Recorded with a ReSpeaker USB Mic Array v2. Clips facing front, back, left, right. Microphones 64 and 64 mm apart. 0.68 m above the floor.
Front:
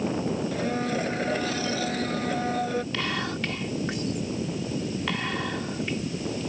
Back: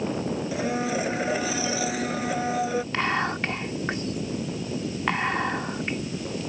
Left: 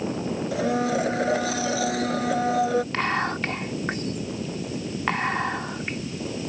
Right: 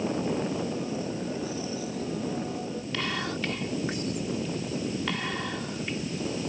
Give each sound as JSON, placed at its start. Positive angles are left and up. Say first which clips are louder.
{"t": 0.5, "sound": "a blender", "louder": "back 1 dB, left 7 dB", "azimuth_deg": 95}
{"t": 2.9, "sound": "whispering", "louder": "back 4 dB, left 6 dB", "azimuth_deg": 125}